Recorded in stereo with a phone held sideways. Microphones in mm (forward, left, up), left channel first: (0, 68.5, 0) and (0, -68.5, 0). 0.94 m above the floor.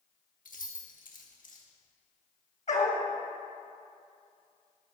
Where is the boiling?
I don't hear boiling.